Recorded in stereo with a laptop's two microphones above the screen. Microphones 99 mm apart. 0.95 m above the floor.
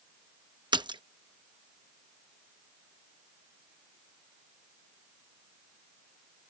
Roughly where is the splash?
Right.